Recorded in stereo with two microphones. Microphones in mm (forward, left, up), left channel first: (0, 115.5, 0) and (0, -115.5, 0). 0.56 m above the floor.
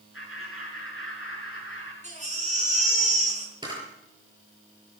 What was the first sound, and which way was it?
Laughter, 65° left (ahead or behind).